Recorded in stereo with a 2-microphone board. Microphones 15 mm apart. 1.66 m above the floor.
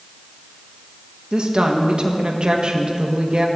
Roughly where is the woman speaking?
Right.